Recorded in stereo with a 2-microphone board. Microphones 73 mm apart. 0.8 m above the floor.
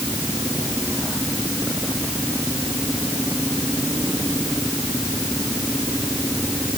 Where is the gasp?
No gasp in this recording.